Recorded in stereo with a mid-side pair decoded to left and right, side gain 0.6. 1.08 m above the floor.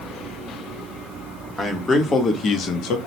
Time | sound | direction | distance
1.6 | a man speaking | 15° left | 1.1 m